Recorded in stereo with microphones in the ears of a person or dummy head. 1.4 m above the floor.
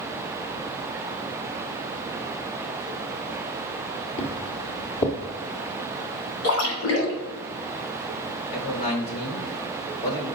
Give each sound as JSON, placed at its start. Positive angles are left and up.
{"t": 4.2, "sound": "footsteps", "side_deg": 25, "distance_m": 1.5}
{"t": 6.4, "sound": "a splash", "side_deg": 75, "distance_m": 3.0}
{"t": 8.5, "sound": "a man speaking", "side_deg": 30, "distance_m": 2.5}